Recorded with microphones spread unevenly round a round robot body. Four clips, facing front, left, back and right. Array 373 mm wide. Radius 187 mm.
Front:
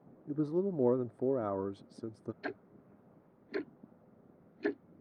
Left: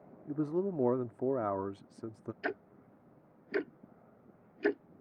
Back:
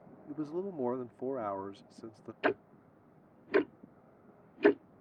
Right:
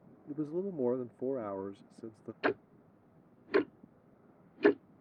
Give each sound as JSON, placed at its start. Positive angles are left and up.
{"t": 0.3, "sound": "a man speaking", "azimuth_deg": 55}
{"t": 2.4, "sound": "ticking", "azimuth_deg": -115}